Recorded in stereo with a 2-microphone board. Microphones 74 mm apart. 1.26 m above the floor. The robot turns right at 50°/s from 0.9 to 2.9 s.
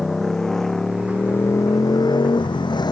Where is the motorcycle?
5° left (ahead or behind); by 2.9 s 70° left (ahead or behind).